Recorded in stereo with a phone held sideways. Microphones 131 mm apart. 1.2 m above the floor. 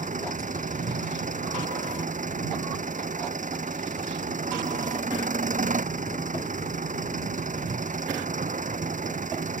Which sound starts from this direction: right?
An engine running, at 0.0 s.